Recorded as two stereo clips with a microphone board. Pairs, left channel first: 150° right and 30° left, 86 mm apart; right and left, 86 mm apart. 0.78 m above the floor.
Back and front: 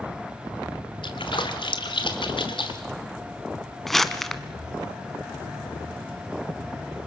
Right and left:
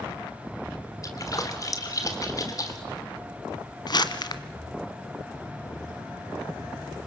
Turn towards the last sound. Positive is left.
turn(degrees=-65)